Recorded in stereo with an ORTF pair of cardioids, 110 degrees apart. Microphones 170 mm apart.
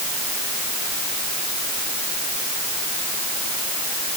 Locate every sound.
Only background noise.